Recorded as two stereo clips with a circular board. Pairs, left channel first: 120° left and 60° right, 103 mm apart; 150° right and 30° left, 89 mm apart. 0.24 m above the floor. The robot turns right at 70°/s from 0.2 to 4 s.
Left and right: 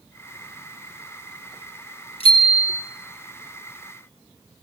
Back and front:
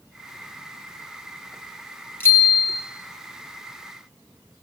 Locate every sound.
2.2 s a bicycle bell: 145° left, 4.5 m; by 2.8 s 170° right, 4.5 m